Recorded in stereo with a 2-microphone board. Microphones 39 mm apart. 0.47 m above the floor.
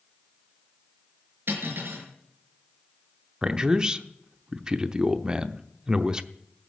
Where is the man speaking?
20° right (ahead or behind), 0.7 m.